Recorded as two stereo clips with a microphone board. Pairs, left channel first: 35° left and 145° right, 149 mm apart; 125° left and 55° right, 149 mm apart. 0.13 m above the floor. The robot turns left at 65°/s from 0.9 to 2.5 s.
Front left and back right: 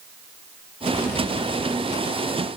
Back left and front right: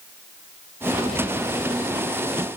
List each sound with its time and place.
Only background noise.